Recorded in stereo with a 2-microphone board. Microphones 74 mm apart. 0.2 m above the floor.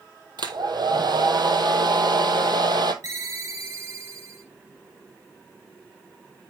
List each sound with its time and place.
0.4 s a hair dryer: 75° right (ahead or behind), 1.0 m
3.0 s a ringtone: 45° right (ahead or behind), 2 m